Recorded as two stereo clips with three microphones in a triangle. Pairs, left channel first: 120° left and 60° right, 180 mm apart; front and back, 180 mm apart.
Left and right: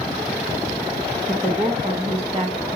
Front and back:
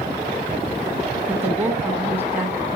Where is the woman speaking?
105° right, 1.8 m.